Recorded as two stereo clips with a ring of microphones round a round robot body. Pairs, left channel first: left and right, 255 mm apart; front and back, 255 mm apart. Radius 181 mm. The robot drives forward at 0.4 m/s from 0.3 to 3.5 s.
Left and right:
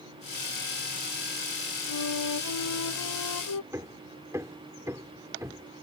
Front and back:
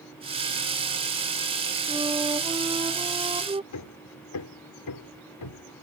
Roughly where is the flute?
Left.